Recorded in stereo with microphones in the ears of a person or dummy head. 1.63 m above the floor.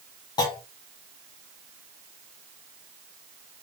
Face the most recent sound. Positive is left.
turn(degrees=20)  # may be behind; listen again after turning